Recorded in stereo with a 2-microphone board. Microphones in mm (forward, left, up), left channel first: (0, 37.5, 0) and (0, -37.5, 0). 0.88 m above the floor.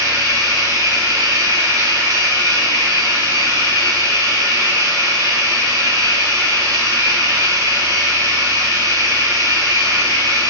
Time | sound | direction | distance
0.0 | running water | 55° right (ahead or behind) | 3 m